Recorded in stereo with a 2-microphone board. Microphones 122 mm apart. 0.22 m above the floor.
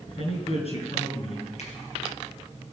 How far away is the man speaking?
About 3.5 m.